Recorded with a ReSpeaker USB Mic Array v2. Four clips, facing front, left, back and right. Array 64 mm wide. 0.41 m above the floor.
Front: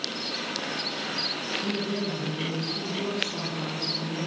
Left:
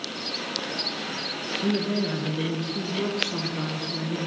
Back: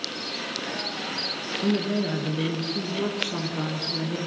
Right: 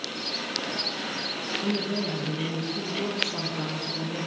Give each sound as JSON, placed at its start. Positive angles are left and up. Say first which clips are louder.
{"t": 1.6, "sound": "a woman speaking", "louder": "left 4 dB, back 7 dB", "azimuth_deg": 145, "distance_m": 7.0}